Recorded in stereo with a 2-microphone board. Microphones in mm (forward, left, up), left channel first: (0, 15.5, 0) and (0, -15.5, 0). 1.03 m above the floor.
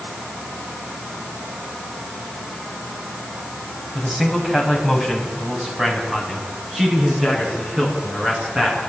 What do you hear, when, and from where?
4.0 s a man speaking: 10° right (ahead or behind), 6.5 m; by 8.8 s 25° right (ahead or behind), 12 m